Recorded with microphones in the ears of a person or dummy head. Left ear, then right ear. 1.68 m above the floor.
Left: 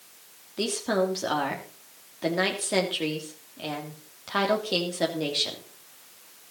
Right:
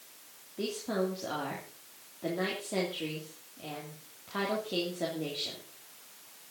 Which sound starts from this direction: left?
A woman speaking, at 0.6 s.